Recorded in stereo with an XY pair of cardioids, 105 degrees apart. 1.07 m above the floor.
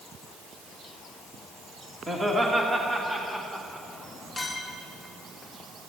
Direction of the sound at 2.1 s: 20° right.